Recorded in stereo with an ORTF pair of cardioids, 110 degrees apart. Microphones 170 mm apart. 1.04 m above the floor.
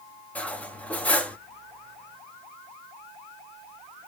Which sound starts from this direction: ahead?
Cutlery clinking, at 0.3 s.